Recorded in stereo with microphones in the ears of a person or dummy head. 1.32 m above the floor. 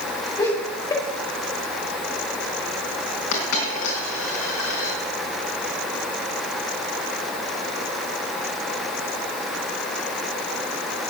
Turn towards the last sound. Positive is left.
turn(degrees=75)  # may be behind; listen again after turning